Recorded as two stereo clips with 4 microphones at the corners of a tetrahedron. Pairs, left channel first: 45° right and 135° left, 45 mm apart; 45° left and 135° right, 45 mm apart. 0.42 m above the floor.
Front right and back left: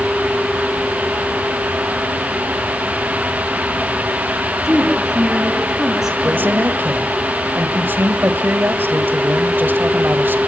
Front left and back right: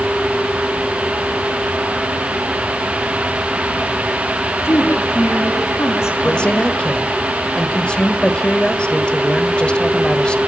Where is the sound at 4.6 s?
55° left, 5.5 m.